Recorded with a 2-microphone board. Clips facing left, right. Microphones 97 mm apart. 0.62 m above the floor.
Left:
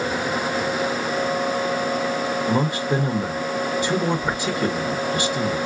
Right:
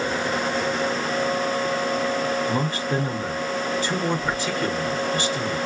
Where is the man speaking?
20° left (ahead or behind), 0.8 m.